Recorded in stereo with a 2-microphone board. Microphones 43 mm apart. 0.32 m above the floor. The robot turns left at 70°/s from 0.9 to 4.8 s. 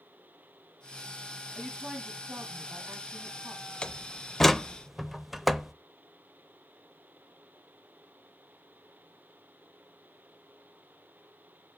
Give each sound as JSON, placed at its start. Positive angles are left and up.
{"t": 1.6, "sound": "a woman speaking", "azimuth_deg": 5, "distance_m": 2.0}
{"t": 3.8, "sound": "a door slam", "side_deg": 20, "distance_m": 0.5}